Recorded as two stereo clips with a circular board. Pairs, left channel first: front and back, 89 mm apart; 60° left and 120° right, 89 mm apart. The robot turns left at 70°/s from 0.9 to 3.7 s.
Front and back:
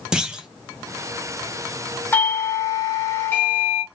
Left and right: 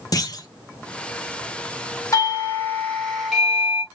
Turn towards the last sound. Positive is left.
turn(degrees=-65)